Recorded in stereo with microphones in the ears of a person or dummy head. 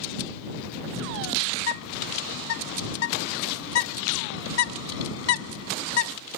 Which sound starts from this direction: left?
A bird, at 1.6 s.